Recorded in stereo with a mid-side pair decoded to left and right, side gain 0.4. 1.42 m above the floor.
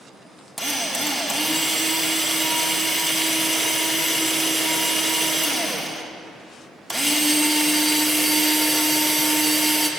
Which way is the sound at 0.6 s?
5° left.